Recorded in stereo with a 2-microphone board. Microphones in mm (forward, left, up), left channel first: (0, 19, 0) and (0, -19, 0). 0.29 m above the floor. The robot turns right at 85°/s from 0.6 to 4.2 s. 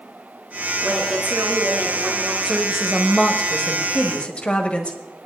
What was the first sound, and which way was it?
A woman speaking, 175° right.